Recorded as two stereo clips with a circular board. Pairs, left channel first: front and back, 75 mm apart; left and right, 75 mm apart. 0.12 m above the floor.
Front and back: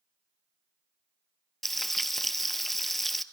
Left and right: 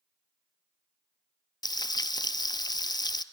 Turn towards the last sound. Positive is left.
turn(degrees=90)